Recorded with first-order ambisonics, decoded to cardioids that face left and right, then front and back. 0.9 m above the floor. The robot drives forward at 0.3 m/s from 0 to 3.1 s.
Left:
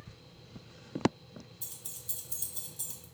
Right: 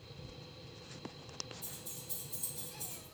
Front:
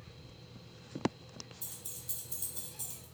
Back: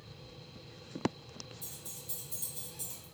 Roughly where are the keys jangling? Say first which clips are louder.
Left 1 dB, even; ahead left.